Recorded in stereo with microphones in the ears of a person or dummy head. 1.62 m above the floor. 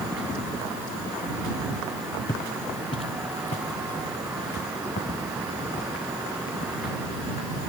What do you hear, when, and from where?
2.3 s footsteps: 15° left (ahead or behind); by 7.7 s 45° left (ahead or behind)